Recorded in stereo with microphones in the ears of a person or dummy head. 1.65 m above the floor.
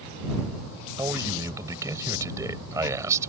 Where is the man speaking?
15° right (ahead or behind).